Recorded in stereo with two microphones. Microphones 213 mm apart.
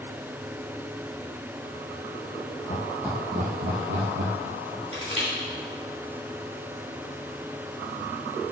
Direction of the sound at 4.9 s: 70° left (ahead or behind).